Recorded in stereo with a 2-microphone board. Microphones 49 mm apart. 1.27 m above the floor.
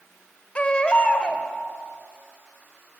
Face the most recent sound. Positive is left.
turn(degrees=25)  # may be behind; listen again after turning